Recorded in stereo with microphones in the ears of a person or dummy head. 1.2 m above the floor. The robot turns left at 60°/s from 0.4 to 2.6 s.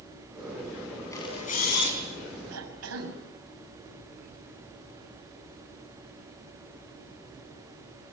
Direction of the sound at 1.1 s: 165° left.